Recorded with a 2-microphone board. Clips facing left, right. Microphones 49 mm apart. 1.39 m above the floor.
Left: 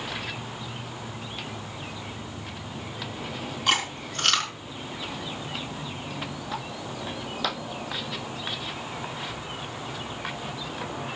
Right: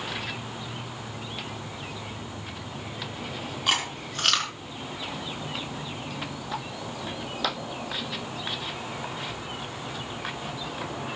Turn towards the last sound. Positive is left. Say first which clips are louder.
# left 2 dB
turn(degrees=-5)  # may be behind; listen again after turning